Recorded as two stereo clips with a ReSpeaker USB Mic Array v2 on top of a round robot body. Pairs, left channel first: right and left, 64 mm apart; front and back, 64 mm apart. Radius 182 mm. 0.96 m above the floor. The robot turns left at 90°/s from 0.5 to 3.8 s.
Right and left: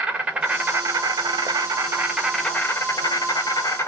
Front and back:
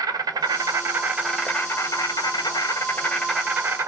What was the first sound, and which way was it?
An insect, 160° left.